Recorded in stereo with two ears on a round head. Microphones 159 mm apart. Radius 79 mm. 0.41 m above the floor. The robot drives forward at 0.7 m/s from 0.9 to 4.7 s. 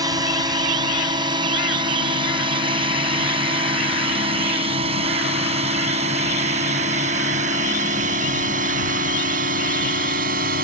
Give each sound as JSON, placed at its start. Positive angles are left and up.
{"t": 0.0, "sound": "a drone", "side_deg": -25}